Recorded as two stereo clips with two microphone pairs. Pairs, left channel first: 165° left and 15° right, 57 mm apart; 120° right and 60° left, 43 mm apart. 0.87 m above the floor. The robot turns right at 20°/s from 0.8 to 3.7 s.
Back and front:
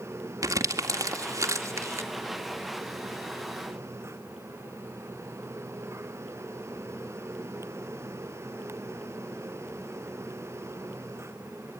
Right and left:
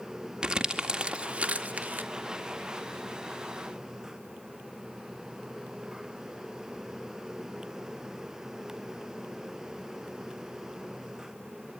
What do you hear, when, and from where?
0.4 s crumpling: 15° right, 2 m; by 2.1 s 10° left, 2 m